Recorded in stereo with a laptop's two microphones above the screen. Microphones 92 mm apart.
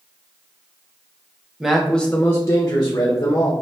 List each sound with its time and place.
1.6 s a man speaking: 5° right (ahead or behind), 0.9 m; by 3.5 s 55° left (ahead or behind), 1.2 m